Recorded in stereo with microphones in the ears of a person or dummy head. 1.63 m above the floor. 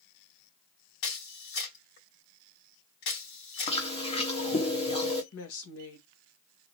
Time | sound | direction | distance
1.0 | a camera shutter | 60° left (ahead or behind) | 2.5 m
3.7 | chewing | 30° left (ahead or behind) | 1.1 m
5.3 | a woman speaking | 80° left | 1.7 m